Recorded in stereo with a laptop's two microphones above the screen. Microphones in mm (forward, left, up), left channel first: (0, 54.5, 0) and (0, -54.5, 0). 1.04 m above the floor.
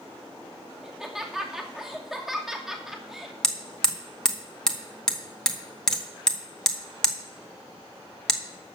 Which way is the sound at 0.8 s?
5° right (ahead or behind).